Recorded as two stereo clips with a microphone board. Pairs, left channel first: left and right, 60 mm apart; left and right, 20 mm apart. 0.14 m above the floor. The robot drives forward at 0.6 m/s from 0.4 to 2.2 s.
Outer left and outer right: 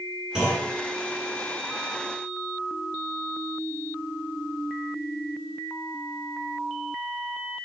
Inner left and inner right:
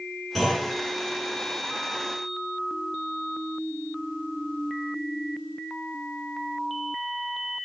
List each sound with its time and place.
0.3 s a clunk: 10° right (ahead or behind), 1.8 m